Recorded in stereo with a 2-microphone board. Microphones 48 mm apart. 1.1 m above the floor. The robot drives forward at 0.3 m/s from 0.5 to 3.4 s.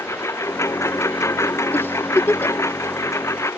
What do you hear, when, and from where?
0.0 s a lawn mower: 85° left
1.7 s a giggle: 55° left (ahead or behind); by 2.6 s 60° left (ahead or behind)